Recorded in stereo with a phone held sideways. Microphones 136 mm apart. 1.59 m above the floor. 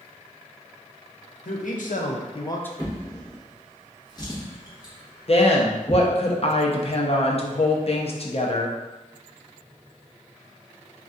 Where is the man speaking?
80° left, 1.0 m; by 2.7 s 10° left (ahead or behind), 0.5 m.